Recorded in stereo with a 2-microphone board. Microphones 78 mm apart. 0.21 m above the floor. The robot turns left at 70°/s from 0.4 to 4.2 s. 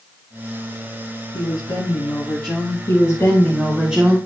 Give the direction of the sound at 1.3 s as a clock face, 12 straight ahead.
8 o'clock.